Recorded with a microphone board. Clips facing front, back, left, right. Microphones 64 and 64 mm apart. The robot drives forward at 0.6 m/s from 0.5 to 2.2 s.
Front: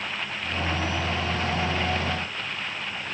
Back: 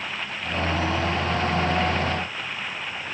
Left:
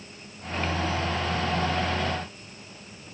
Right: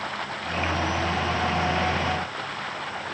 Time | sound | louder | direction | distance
0.0 | running water | even, right 13 dB | 90° right | ?